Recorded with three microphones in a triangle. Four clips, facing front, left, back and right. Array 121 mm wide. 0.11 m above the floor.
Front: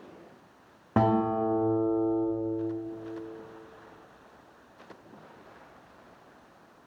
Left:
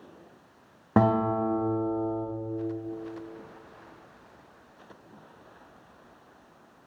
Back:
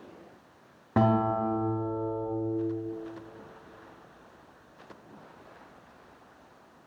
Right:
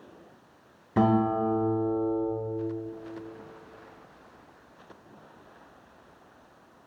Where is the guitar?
80° left, 4 m.